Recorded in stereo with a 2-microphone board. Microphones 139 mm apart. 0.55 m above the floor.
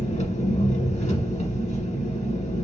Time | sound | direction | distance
0.0 | an engine running | 60° left (ahead or behind) | 1.3 m